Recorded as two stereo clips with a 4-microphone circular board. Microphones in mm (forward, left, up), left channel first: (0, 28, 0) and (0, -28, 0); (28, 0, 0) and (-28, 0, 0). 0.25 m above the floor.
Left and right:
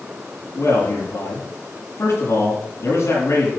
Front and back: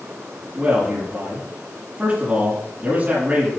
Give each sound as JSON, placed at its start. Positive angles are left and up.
{"t": 0.6, "sound": "a man speaking", "azimuth_deg": 120, "distance_m": 6.5}